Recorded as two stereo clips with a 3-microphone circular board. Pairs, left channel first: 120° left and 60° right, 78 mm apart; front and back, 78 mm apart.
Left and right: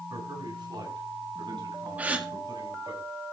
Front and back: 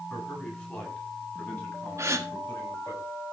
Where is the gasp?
130° right, 1.9 m.